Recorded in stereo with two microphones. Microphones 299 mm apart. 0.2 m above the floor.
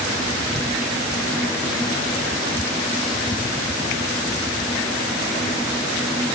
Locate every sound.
Only background noise.